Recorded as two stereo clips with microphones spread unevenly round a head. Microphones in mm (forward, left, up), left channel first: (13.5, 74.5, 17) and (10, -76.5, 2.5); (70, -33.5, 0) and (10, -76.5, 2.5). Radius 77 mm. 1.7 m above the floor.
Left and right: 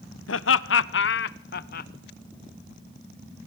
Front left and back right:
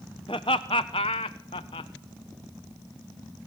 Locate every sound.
0.3 s laughter: 100° left, 1.3 m; by 1.9 s 60° left, 1.6 m